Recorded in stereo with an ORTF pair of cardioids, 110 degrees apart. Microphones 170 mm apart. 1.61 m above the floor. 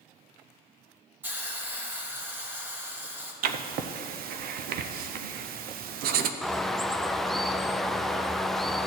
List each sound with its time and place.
1.2 s a hiss: 10° right, 1.7 m
3.4 s writing: 65° right, 0.7 m
6.4 s a bird: straight ahead, 0.5 m